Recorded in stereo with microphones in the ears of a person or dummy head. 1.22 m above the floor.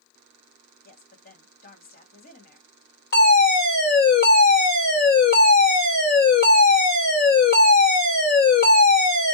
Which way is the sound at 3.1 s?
50° left (ahead or behind).